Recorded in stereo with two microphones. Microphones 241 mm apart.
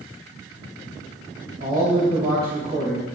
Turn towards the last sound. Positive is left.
turn(degrees=-40)  # may be behind; listen again after turning